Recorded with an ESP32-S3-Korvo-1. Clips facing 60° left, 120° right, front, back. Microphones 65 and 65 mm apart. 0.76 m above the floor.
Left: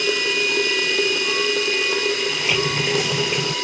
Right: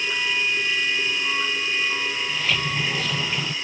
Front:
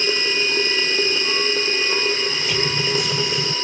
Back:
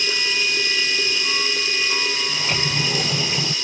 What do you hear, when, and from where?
0.0 s running water: 50° left
2.3 s a sliding door: 135° left